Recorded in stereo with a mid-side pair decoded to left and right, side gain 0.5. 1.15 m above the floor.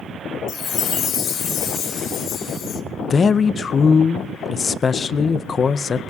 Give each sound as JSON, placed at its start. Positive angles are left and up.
{"t": 0.5, "sound": "a chime", "azimuth_deg": 60, "distance_m": 1.4}
{"t": 3.1, "sound": "a man speaking", "azimuth_deg": 35, "distance_m": 0.5}